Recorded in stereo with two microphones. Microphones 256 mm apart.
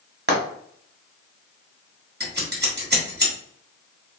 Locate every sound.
0.3 s frying: 45° right (ahead or behind), 1.1 m
2.2 s scissors: 40° right (ahead or behind), 1.2 m